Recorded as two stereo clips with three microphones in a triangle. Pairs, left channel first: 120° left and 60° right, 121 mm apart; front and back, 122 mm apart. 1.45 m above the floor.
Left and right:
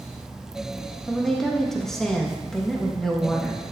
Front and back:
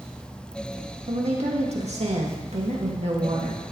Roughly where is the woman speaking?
Behind right.